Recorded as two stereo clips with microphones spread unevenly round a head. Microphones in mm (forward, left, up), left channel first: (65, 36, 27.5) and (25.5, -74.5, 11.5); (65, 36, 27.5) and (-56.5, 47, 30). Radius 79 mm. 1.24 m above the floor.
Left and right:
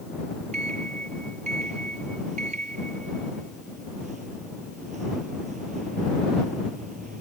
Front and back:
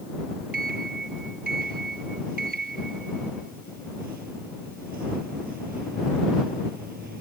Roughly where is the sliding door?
Behind.